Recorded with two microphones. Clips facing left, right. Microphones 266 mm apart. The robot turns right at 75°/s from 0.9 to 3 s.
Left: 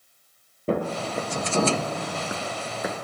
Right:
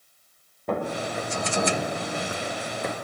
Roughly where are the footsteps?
Left.